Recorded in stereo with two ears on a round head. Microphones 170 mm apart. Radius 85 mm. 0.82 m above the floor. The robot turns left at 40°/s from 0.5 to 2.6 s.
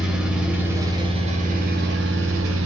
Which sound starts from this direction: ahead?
An engine running, at 0.0 s.